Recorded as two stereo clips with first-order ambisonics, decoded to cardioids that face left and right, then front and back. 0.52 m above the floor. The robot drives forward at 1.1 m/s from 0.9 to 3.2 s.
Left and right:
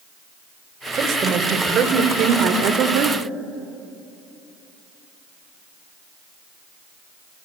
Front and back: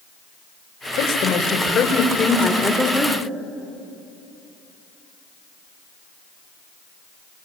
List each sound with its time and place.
1.0 s a woman speaking: 35° right, 3 m; by 3.2 s 105° right, 1.9 m